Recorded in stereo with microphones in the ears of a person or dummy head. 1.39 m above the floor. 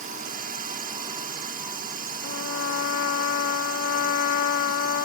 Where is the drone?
45° right (ahead or behind).